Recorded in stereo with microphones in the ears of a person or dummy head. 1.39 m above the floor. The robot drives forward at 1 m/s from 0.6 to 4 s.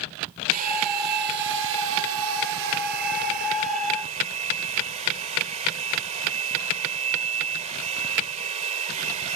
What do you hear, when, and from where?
0.5 s a hair dryer: 45° right (ahead or behind); by 9.4 s 40° right (ahead or behind)